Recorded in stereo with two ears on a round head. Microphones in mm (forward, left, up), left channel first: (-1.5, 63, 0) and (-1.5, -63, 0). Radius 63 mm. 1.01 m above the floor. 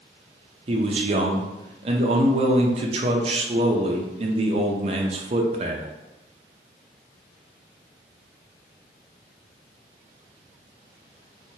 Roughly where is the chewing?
No chewing in this recording.